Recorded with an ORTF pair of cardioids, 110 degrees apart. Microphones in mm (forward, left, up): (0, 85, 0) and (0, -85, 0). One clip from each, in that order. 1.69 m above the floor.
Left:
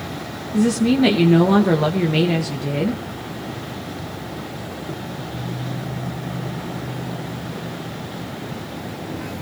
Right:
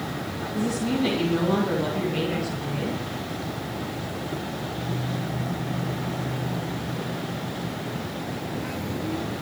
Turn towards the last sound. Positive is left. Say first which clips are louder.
# left 9 dB
turn(degrees=65)